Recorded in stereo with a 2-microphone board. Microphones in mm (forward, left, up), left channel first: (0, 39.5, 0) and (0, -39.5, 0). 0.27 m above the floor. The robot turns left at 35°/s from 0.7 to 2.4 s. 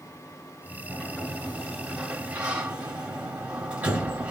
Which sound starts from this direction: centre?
A sliding door, at 0.9 s.